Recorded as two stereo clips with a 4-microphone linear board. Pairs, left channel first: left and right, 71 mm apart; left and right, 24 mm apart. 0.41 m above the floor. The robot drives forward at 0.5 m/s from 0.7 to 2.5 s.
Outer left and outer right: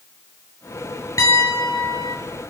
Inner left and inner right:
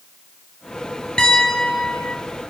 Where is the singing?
I don't hear singing.